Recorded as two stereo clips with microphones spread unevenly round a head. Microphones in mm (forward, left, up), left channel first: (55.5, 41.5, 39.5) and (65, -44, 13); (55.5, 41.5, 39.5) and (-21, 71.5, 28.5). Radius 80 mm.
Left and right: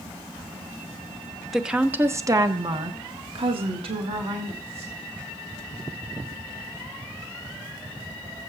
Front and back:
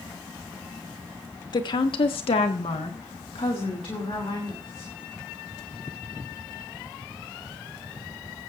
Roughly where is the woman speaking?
Ahead.